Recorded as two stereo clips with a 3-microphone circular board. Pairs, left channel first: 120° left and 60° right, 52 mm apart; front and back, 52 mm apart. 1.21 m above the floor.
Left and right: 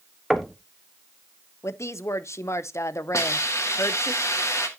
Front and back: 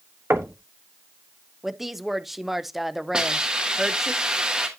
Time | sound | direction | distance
0.3 | knocking | 150° right | 1.0 m
1.6 | a woman speaking | 95° left | 0.6 m
3.1 | a hiss | 105° left | 2 m